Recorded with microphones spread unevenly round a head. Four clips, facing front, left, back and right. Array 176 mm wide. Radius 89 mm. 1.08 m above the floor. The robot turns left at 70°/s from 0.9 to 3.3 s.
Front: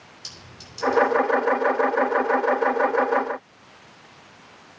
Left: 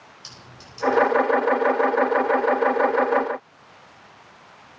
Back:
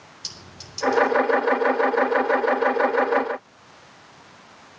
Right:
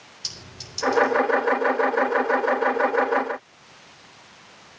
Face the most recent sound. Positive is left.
turn(degrees=55)